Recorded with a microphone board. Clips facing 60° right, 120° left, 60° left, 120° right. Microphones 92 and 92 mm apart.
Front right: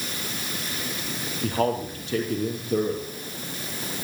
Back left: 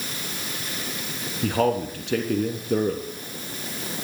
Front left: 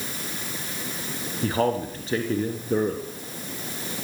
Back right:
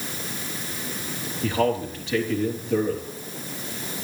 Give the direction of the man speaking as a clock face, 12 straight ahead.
8 o'clock.